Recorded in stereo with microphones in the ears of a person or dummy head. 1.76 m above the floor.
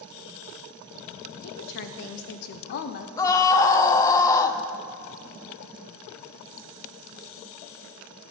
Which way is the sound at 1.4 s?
60° left (ahead or behind).